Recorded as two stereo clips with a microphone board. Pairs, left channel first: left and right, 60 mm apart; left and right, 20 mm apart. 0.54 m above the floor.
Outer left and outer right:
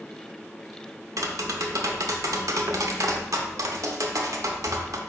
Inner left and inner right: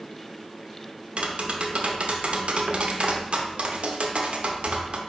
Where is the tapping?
65° right (ahead or behind), 0.6 m.